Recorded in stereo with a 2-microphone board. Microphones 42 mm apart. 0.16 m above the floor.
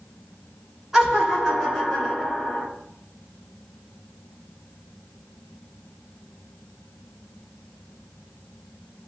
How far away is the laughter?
About 2.0 m.